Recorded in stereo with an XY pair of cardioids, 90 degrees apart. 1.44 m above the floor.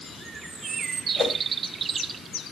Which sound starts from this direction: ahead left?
A whoosh, at 1.2 s.